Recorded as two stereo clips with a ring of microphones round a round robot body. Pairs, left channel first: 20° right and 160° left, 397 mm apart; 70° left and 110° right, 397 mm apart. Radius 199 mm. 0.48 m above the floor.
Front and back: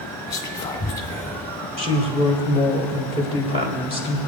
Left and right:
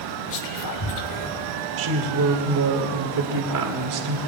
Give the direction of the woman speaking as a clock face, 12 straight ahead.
4 o'clock.